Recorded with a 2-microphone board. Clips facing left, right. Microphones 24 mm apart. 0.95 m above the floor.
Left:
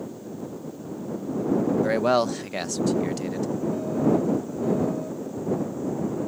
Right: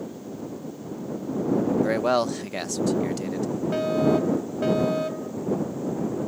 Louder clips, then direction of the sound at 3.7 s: Right 2 dB; 80° right.